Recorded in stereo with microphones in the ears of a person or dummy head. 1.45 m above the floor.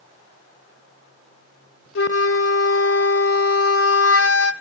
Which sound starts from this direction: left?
A flute, at 1.9 s.